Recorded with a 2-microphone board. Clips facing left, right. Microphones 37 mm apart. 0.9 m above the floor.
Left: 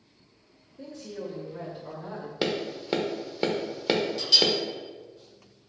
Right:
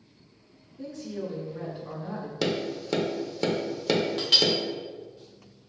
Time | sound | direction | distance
0.8 | a woman speaking | 40° left (ahead or behind) | 2.0 m
2.4 | tapping | 20° left (ahead or behind) | 0.5 m
4.2 | a clink | 40° right (ahead or behind) | 1.0 m